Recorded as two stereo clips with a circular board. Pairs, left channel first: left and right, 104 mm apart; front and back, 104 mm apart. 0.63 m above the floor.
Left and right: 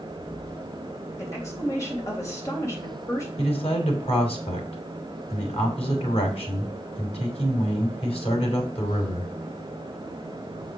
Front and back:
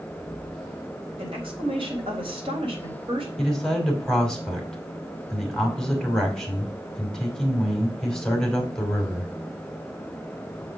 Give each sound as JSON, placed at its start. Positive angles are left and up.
{"t": 1.2, "sound": "a woman speaking", "azimuth_deg": 150, "distance_m": 3.5}
{"t": 3.4, "sound": "a man speaking", "azimuth_deg": 85, "distance_m": 2.5}